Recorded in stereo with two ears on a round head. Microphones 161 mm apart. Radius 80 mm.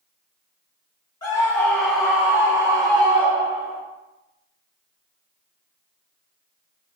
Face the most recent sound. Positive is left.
turn(degrees=-35)  # may be behind; listen again after turning